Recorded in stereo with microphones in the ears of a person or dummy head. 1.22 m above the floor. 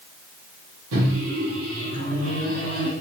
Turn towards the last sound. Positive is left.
turn(degrees=-85)